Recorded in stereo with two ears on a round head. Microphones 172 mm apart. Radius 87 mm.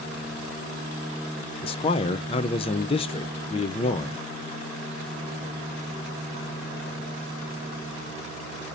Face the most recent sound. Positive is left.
turn(degrees=30)  # may be behind; listen again after turning